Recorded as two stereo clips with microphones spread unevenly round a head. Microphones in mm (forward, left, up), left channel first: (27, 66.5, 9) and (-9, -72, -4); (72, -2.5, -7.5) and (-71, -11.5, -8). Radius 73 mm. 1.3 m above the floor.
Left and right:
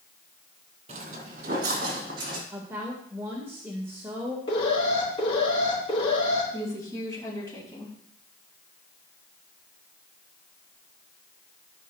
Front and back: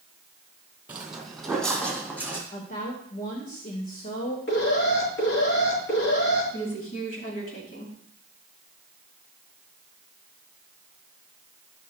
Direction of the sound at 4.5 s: 20° left.